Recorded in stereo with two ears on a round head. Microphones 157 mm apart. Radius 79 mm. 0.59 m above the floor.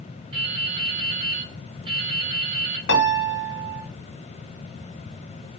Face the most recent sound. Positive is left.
turn(degrees=60)  # may be behind; listen again after turning